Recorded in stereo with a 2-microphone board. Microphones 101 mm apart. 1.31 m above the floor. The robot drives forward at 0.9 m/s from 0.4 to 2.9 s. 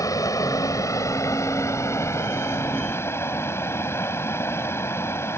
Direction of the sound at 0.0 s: 35° left (ahead or behind).